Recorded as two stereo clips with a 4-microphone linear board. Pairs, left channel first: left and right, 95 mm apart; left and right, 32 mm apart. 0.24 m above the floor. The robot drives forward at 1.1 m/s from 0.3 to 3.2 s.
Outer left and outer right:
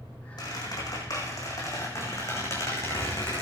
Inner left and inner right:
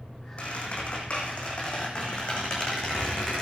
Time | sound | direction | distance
0.4 | a squeak | 45° left (ahead or behind) | 6 m